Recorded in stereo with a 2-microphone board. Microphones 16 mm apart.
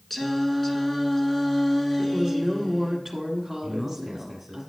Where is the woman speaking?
5° right (ahead or behind), 1.5 m.